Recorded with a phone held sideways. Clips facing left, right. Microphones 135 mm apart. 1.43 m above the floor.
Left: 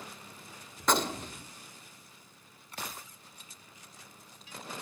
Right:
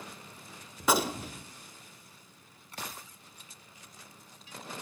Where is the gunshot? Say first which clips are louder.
Right 1 dB; 5° right (ahead or behind), 1.6 m.